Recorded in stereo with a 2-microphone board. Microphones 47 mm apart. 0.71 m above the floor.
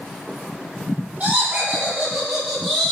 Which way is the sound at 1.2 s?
30° right (ahead or behind).